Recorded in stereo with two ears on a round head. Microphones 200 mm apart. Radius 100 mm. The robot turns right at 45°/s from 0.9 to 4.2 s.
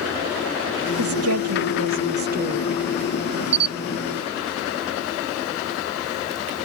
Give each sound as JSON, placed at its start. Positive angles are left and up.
{"t": 1.0, "sound": "a woman speaking", "azimuth_deg": -105}
{"t": 3.5, "sound": "a camera shutter", "side_deg": -55}